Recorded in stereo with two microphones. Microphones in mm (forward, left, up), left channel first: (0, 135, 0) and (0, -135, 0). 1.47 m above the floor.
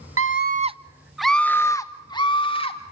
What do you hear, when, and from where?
0.2 s a scream: 55° right (ahead or behind), 0.7 m; by 2.8 s 20° left (ahead or behind), 2.5 m